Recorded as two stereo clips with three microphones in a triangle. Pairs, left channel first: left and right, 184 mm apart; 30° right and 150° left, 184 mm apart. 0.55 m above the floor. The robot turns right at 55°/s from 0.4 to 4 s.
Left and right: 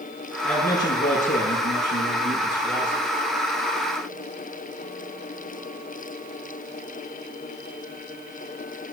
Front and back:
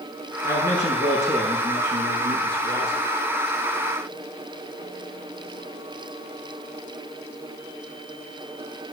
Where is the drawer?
I don't hear a drawer.